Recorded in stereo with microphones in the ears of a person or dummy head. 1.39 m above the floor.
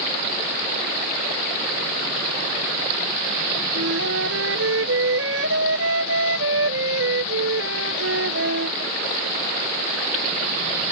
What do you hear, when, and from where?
3.8 s a flute: 70° right (ahead or behind)